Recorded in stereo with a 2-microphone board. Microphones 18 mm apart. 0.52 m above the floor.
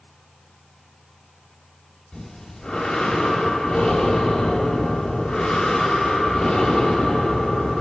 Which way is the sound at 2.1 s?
50° left (ahead or behind).